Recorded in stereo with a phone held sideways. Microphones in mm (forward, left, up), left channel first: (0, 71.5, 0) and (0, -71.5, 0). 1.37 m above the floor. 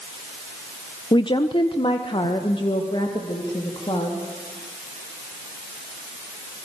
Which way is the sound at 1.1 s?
35° left (ahead or behind).